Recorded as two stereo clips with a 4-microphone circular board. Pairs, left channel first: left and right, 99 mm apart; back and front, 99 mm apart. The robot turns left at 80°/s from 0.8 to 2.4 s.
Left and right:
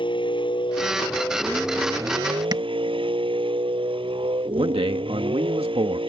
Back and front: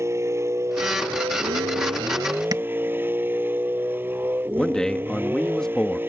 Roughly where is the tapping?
Ahead right.